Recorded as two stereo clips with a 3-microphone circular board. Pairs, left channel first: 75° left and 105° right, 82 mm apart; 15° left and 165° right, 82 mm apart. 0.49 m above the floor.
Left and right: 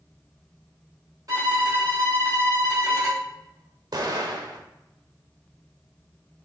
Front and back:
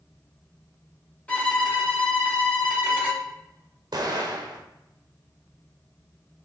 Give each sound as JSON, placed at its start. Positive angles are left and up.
{"t": 1.3, "sound": "a violin", "azimuth_deg": -60, "distance_m": 1.6}
{"t": 3.9, "sound": "an explosion", "azimuth_deg": -135, "distance_m": 0.8}